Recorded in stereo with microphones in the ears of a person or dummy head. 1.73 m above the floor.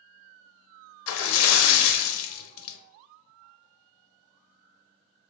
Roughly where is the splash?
Left.